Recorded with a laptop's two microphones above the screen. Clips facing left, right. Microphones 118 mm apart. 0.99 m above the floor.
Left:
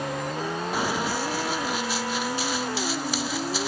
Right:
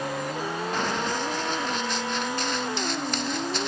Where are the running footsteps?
10° left (ahead or behind); by 3.7 s 5° left (ahead or behind).